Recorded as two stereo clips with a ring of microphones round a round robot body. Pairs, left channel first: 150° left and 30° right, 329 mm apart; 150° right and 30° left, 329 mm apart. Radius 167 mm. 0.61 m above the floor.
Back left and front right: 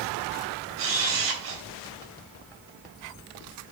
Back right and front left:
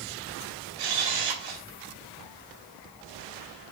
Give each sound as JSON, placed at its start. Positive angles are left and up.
{"t": 0.8, "sound": "a camera shutter", "azimuth_deg": 20, "distance_m": 3.5}